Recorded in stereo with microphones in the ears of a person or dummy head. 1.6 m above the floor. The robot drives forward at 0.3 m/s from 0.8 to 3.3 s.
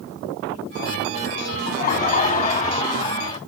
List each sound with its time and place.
1.7 s laughter: 40° left (ahead or behind), 1.1 m; by 3.4 s 25° left (ahead or behind), 1.5 m